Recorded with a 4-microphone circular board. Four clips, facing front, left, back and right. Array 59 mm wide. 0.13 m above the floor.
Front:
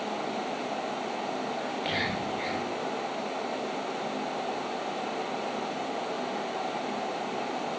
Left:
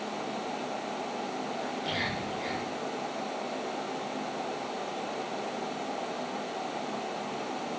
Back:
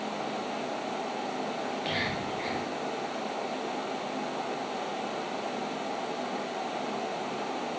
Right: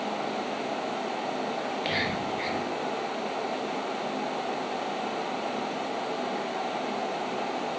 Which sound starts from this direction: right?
Whispering, at 1.6 s.